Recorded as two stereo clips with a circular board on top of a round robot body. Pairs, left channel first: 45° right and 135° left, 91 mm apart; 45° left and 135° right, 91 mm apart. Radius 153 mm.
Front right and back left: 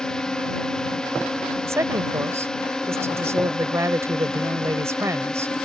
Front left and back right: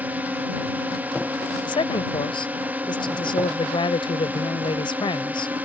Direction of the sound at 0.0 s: 110° right.